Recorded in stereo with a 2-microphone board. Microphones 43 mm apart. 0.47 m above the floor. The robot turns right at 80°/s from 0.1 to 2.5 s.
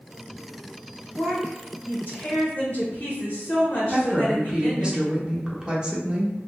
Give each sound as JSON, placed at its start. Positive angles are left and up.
{"t": 1.2, "sound": "a woman speaking", "azimuth_deg": 5, "distance_m": 1.6}
{"t": 3.9, "sound": "a woman speaking", "side_deg": -20, "distance_m": 0.7}